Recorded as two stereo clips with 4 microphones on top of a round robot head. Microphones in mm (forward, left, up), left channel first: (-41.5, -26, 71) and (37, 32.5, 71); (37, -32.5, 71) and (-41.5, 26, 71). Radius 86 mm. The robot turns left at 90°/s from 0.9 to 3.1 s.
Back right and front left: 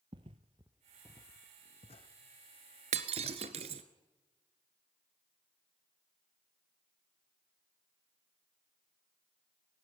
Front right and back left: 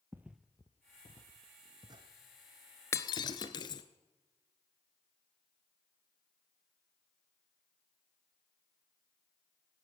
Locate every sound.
0.1 s footsteps: 75° left, 0.7 m; by 2.1 s 175° left, 1.9 m
2.9 s breaking glass: 30° left, 0.9 m; by 3.8 s 10° left, 0.9 m